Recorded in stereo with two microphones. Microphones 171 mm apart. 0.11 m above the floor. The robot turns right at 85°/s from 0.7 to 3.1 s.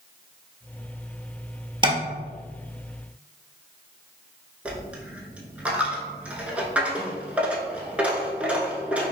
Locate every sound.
1.8 s tapping: 30° right (ahead or behind), 0.7 m; by 2.0 s 20° right (ahead or behind), 0.7 m
4.7 s a dropped coin: 10° right (ahead or behind), 0.6 m